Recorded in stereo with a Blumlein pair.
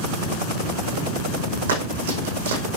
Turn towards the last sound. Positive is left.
turn(degrees=-65)